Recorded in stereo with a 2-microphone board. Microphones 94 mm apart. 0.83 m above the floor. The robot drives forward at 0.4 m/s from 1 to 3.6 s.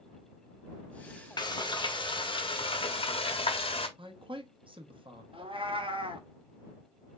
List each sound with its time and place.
1.4 s frying: 50° left (ahead or behind), 1.2 m; by 3.9 s 80° left, 1.0 m
4.0 s a man speaking: 65° right (ahead or behind), 0.9 m
5.3 s a cat meowing: 70° right (ahead or behind), 0.8 m